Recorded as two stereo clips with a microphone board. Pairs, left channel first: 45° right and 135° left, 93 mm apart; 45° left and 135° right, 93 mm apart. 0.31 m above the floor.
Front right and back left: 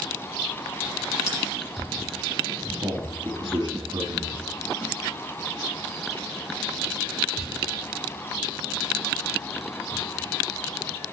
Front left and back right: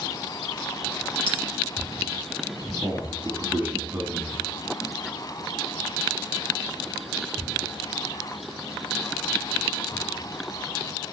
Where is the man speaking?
155° left, 3 m.